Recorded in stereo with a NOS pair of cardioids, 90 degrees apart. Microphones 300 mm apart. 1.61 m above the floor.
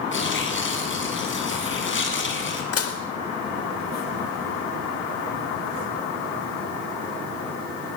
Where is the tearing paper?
40° left, 7.5 m.